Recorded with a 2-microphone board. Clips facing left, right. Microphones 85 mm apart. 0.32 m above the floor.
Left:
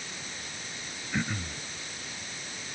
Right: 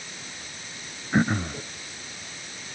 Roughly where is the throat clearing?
Right.